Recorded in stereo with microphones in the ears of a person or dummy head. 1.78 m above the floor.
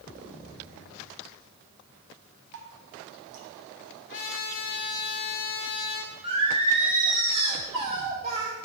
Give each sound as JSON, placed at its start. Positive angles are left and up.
{"t": 2.5, "sound": "dripping", "side_deg": -65, "distance_m": 1.4}
{"t": 4.1, "sound": "a trumpet", "side_deg": 55, "distance_m": 1.8}
{"t": 6.2, "sound": "singing", "side_deg": -30, "distance_m": 1.8}